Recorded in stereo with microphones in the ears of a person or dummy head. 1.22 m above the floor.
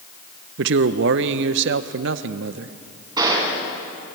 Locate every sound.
0.6 s a man speaking: 70° right (ahead or behind), 0.9 m
3.2 s a gunshot: 25° right (ahead or behind), 4.5 m